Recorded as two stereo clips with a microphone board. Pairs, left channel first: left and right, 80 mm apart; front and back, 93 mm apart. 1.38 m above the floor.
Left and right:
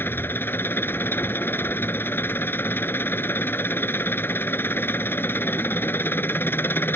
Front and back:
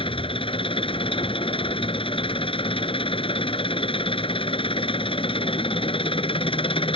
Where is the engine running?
25° left.